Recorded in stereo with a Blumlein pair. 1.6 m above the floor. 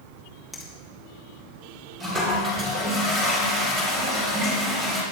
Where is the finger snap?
5° left, 2 m.